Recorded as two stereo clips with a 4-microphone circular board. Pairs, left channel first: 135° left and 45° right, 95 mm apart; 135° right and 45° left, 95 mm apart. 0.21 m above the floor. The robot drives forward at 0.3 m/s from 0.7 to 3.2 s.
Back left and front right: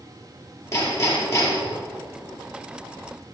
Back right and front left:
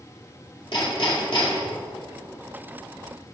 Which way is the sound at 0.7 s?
165° right.